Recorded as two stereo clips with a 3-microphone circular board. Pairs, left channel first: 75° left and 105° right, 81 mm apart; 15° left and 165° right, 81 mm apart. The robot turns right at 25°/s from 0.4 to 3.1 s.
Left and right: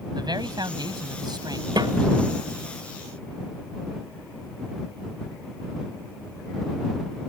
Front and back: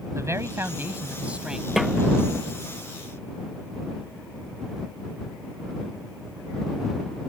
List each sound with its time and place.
0.1 s a man speaking: 115° right; by 1.7 s 85° right
1.8 s a snare drum: 80° right; by 1.9 s 75° right